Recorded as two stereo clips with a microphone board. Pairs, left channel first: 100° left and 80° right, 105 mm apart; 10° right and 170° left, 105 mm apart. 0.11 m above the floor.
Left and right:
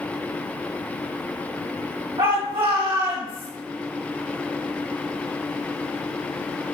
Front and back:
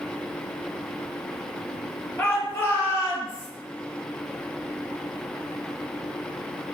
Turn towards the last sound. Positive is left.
turn(degrees=-60)